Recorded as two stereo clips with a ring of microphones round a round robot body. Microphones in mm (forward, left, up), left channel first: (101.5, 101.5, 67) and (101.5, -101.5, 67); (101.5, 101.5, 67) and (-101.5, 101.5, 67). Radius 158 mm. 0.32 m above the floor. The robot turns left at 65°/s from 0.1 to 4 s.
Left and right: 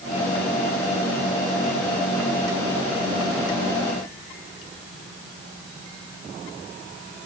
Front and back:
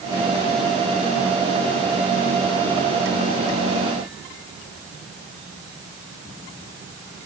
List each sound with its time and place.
Only background noise.